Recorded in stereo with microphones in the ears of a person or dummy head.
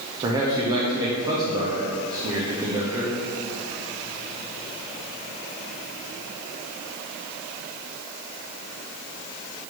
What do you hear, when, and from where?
0.2 s a man speaking: 15° right (ahead or behind), 0.8 m